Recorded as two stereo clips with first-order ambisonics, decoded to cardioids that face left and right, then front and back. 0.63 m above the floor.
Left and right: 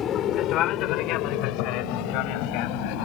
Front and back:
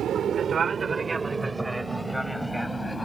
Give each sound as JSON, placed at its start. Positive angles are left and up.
{"t": 0.0, "sound": "an aircraft", "azimuth_deg": 135}